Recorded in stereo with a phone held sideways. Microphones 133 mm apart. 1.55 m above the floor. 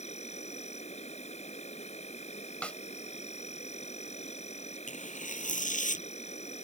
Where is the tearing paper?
75° left (ahead or behind).